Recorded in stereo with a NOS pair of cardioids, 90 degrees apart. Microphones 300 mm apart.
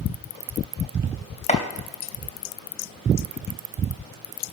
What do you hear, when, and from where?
1.5 s chopping: 25° left, 3 m